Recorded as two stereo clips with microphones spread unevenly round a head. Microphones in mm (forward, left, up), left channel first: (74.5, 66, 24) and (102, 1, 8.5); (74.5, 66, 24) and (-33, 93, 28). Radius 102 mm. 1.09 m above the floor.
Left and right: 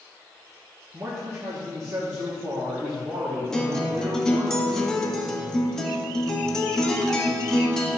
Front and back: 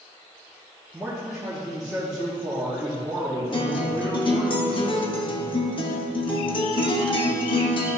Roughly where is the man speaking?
Right.